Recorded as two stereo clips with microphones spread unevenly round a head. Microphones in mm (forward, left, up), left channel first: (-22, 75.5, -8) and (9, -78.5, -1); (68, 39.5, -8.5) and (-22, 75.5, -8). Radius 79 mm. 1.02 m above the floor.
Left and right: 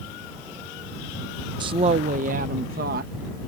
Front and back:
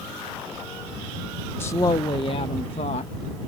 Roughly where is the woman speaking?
Ahead right.